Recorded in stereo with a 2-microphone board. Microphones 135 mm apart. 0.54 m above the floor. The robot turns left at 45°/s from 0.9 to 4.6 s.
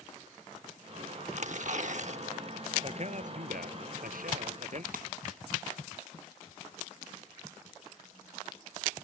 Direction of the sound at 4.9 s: 75° right (ahead or behind).